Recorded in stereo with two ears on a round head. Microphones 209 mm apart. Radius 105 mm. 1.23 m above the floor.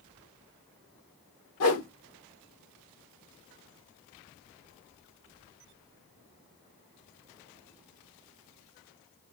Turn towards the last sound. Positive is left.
turn(degrees=70)  # may be behind; listen again after turning